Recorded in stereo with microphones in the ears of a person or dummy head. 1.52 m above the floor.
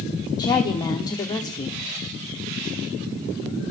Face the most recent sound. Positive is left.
turn(degrees=20)  # may be behind; listen again after turning